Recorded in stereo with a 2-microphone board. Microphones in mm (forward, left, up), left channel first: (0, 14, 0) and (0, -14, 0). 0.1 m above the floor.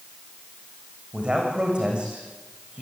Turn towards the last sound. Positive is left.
turn(degrees=-35)  # may be behind; listen again after turning